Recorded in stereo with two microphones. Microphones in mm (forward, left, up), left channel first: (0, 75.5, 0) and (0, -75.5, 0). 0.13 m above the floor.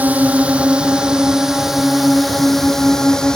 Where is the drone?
10° right (ahead or behind); by 3.4 s 5° left (ahead or behind).